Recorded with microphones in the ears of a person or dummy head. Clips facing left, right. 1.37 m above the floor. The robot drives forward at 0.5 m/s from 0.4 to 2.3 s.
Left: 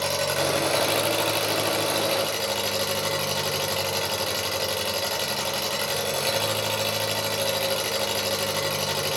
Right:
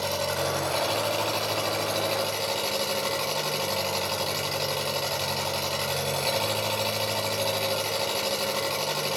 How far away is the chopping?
No chopping in this recording.